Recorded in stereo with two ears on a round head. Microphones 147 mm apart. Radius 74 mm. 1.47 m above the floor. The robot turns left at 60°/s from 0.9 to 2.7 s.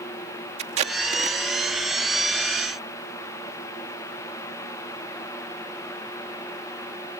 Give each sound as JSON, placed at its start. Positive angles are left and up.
{"t": 0.6, "sound": "tape being pulled", "side_deg": -40}